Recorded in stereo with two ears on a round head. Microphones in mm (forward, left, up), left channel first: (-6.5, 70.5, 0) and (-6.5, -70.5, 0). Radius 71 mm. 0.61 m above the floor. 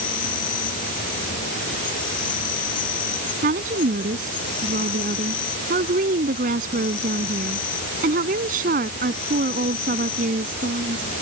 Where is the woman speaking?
55° right (ahead or behind).